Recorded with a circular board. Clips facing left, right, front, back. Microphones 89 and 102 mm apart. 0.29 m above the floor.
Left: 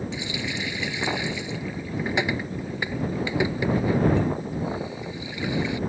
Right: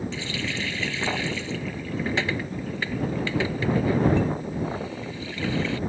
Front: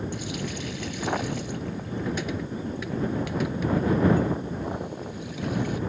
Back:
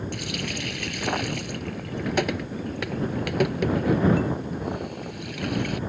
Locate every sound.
0.1 s a running tap: 165° left